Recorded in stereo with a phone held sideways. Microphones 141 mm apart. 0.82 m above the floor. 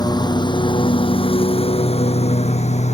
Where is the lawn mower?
30° left (ahead or behind); by 3.0 s 55° left (ahead or behind).